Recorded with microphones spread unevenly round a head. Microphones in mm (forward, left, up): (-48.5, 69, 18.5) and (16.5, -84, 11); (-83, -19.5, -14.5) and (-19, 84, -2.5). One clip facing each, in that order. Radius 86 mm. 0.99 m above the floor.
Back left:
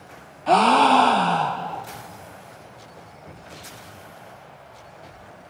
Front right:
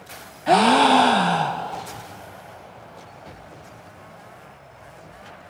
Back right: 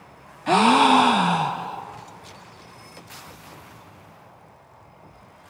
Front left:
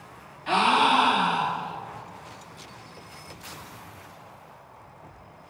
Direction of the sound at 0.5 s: 140° right.